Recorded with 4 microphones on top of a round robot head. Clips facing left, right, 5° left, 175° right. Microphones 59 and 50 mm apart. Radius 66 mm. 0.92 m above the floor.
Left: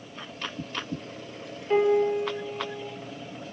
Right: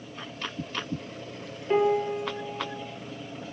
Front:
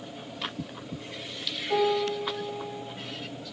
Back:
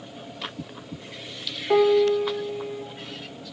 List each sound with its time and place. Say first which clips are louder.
1.7 s a piano: left 2 dB, back 7 dB; 175° right, 1.6 m